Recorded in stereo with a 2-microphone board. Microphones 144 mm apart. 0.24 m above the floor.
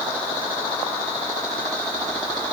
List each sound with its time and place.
Only background noise.